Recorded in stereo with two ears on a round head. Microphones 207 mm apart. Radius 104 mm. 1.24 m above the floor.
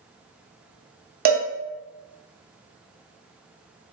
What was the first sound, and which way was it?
A cowbell, 45° right (ahead or behind).